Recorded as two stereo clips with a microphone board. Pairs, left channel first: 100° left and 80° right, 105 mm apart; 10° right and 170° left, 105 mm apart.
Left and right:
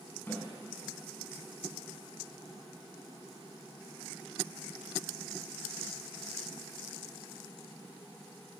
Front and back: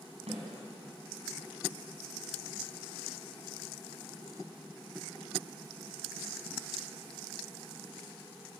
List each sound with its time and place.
0.3 s a snare drum: 170° left, 8 m